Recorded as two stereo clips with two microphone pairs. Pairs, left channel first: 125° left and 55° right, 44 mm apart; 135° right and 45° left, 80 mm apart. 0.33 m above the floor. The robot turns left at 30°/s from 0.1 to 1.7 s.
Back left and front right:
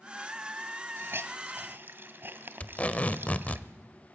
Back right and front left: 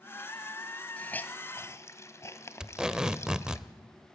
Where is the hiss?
60° right, 1.4 m; by 3.6 s 85° right, 1.4 m.